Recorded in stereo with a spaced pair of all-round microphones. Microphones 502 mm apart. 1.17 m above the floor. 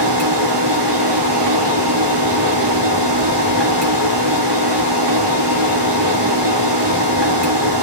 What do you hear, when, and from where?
0.0 s a machine running: 55° right (ahead or behind), 3 m